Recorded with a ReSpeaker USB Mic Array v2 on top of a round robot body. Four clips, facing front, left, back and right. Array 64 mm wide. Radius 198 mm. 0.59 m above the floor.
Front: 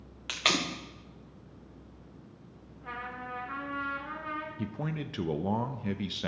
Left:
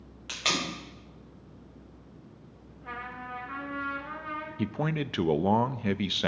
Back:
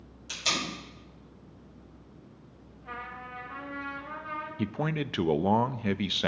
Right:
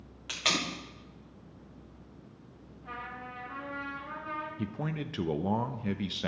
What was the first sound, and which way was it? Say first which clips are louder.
Tape being pulled: left 1 dB, front 3 dB; straight ahead.